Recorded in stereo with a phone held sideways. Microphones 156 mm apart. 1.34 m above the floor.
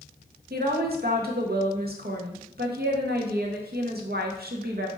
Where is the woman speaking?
80° right, 0.9 m.